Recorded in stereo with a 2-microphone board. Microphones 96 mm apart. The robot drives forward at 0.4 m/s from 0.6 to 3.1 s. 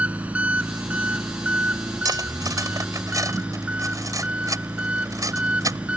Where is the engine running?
15° right (ahead or behind).